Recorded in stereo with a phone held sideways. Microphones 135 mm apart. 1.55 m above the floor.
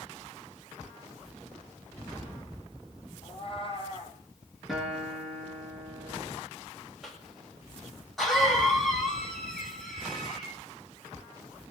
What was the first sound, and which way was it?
A cat meowing, 40° left (ahead or behind).